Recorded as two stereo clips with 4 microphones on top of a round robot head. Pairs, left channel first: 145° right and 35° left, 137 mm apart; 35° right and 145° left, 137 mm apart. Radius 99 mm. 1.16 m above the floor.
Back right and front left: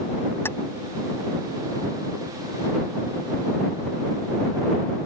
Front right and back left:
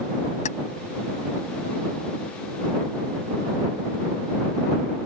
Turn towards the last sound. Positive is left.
turn(degrees=-70)